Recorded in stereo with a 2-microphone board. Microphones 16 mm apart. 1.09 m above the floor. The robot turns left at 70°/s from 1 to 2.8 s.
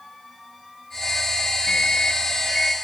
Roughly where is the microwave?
Left.